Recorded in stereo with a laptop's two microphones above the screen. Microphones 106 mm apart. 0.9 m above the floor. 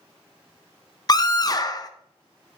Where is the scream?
35° left (ahead or behind), 0.6 m.